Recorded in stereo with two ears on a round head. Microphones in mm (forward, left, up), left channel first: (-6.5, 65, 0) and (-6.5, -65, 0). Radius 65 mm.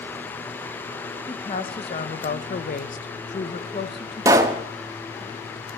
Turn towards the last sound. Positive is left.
turn(degrees=-20)  # may be behind; listen again after turning